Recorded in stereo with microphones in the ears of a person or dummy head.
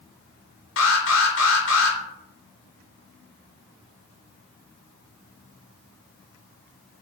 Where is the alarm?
65° left (ahead or behind), 0.8 m.